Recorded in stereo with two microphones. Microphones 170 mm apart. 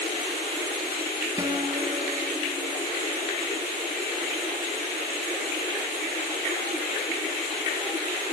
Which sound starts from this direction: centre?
A guitar, at 1.4 s.